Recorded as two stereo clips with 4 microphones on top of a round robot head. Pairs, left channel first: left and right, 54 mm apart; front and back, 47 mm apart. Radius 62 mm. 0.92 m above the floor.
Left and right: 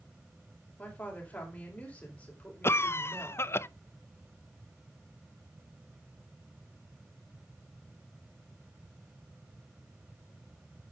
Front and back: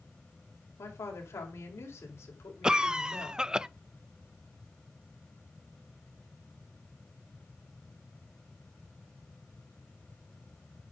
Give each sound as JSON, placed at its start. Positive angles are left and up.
{"t": 0.8, "sound": "a woman speaking", "azimuth_deg": 20, "distance_m": 5.0}
{"t": 2.6, "sound": "a cough", "azimuth_deg": 110, "distance_m": 0.7}